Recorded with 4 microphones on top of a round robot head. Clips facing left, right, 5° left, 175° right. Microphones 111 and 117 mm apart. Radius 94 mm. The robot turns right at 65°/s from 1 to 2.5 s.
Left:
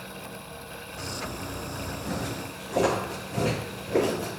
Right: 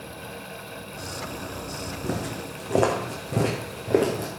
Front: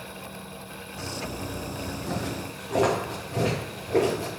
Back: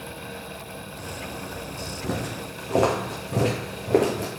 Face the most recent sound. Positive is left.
turn(degrees=-130)